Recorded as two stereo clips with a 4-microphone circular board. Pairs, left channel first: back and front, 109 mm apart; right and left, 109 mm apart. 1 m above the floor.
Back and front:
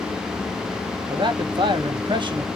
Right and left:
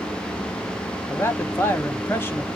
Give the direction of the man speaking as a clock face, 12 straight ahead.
1 o'clock.